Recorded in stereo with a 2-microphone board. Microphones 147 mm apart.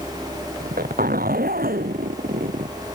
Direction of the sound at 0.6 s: 85° right.